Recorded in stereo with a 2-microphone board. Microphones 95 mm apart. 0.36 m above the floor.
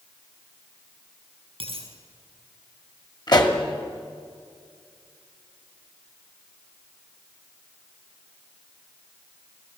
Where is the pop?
50° left (ahead or behind), 1.8 m.